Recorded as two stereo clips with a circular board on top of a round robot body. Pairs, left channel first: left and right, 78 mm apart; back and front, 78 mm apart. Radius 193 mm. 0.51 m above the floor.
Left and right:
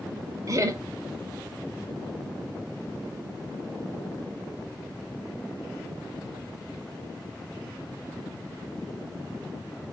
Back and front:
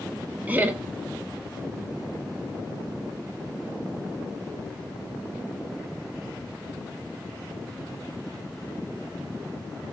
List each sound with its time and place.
0.5 s laughter: 60° right, 0.9 m